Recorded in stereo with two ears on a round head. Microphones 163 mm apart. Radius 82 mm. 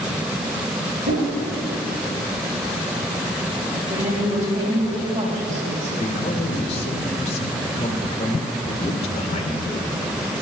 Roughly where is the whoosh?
Right.